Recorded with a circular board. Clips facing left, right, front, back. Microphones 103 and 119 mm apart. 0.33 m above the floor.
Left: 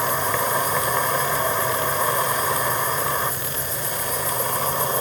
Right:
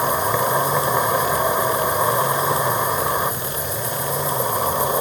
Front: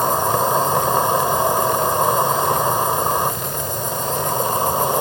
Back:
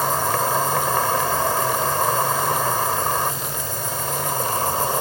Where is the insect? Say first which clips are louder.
Right 3 dB, front 3 dB; 40° right.